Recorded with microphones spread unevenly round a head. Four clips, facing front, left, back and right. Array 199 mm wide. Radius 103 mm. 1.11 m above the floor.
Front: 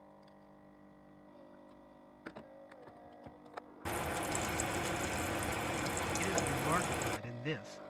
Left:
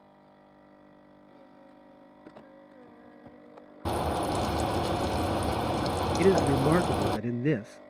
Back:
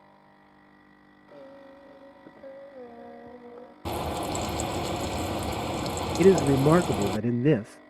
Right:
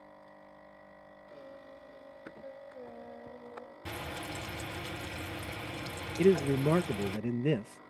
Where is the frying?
125° left.